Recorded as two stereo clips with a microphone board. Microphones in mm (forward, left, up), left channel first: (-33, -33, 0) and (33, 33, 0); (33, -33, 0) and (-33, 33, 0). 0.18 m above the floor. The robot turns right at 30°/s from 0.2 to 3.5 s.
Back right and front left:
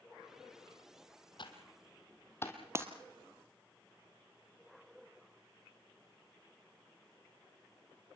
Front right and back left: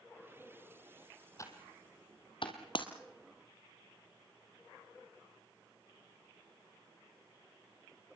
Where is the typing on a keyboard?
100° right, 2.5 m; by 2.6 s 65° right, 2.5 m.